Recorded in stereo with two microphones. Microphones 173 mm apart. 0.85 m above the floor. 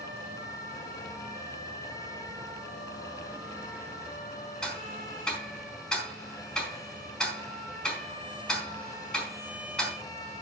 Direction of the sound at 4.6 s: 5° left (ahead or behind).